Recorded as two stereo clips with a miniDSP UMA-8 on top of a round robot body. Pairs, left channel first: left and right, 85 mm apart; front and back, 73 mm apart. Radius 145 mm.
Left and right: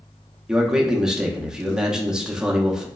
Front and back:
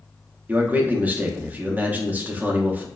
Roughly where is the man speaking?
Behind.